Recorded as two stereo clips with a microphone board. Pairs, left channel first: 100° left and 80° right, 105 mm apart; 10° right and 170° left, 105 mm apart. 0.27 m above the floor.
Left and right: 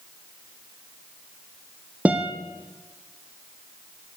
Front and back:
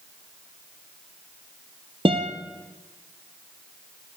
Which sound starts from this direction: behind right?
A guitar, at 2.0 s.